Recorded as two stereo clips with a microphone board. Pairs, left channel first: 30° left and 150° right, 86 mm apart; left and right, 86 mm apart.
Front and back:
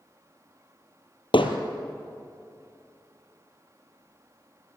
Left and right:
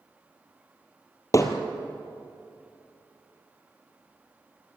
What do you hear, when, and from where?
1.3 s hammering: 40° left, 2 m